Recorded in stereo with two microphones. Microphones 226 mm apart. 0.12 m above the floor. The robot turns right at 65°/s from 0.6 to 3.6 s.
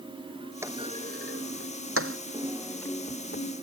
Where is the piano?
25° right; by 3.5 s 55° left.